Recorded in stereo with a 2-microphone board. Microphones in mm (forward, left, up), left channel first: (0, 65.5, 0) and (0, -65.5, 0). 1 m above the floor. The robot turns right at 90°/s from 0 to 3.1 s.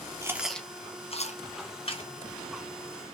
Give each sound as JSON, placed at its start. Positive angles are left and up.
{"t": 0.2, "sound": "chewing", "side_deg": -25, "distance_m": 1.2}
{"t": 1.9, "sound": "a microwave", "side_deg": 45, "distance_m": 2.5}